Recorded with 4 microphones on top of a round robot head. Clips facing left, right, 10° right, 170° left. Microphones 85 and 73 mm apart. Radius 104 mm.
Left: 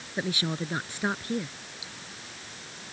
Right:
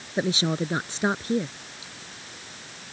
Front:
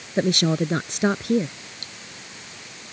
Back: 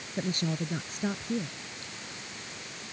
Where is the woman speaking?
20° right.